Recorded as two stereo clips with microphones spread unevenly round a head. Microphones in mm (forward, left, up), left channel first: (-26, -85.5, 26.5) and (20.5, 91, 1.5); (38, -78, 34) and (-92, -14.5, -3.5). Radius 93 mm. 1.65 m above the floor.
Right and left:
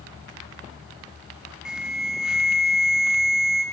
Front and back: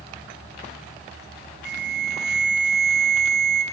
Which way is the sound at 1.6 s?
165° left.